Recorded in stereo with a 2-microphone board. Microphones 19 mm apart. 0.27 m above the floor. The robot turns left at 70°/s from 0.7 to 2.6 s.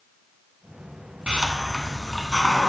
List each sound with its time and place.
1.3 s a hiss: 115° right, 1.5 m; by 2.7 s 150° left, 1.5 m